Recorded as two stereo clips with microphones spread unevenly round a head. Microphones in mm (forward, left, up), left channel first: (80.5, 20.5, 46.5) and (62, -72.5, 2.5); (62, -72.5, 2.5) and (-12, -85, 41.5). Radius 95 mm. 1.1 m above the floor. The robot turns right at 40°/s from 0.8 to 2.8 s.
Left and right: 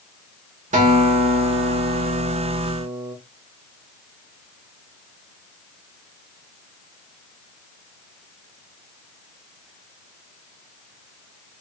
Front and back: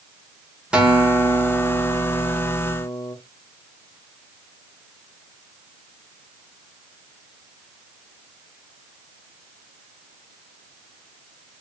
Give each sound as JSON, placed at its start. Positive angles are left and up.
{"t": 0.7, "sound": "a guitar", "azimuth_deg": -130, "distance_m": 0.8}